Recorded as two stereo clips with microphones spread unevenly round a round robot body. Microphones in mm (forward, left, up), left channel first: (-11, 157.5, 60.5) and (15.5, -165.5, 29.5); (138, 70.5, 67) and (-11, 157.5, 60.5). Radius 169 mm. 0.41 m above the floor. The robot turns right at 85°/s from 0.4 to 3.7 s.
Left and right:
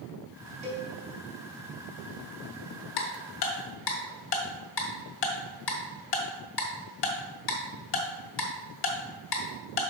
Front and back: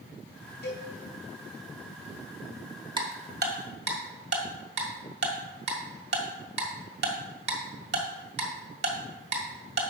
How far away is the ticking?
About 1.7 m.